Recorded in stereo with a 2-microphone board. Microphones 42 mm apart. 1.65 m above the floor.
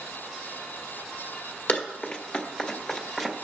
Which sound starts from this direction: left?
Running footsteps, at 1.7 s.